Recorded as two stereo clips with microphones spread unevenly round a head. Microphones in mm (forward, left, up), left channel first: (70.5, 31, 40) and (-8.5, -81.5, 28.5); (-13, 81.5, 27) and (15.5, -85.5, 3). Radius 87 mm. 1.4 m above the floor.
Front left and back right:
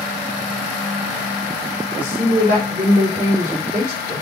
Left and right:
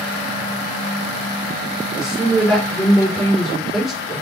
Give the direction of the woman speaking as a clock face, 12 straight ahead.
6 o'clock.